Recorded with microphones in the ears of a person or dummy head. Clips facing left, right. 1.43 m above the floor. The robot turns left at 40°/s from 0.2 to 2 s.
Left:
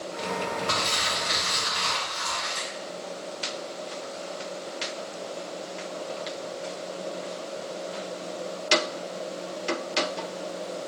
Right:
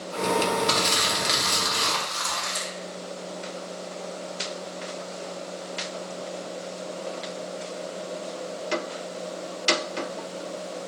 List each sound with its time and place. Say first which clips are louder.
0.7 s crumpling: right 4 dB; 45° right, 1.2 m; by 2.7 s 100° right, 1.2 m